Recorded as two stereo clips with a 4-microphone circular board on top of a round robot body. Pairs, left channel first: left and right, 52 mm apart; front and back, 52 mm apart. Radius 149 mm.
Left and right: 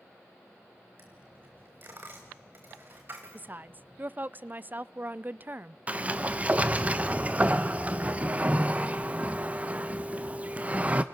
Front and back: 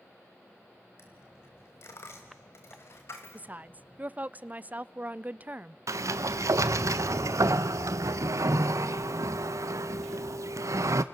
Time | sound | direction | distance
1.0 | a dropped coin | 40° right | 1.1 m
3.3 | a woman speaking | 130° right | 0.6 m
5.9 | a sliding door | 155° right | 0.6 m